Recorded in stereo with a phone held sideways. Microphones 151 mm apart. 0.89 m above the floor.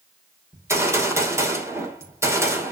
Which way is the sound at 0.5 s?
20° right (ahead or behind).